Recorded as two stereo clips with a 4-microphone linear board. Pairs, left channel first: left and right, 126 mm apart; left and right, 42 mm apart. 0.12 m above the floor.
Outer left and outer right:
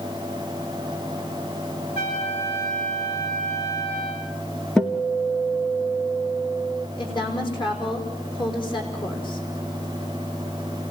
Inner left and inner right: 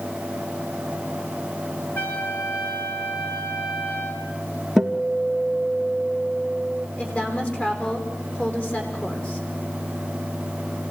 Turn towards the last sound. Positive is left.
turn(degrees=40)  # may be behind; listen again after turning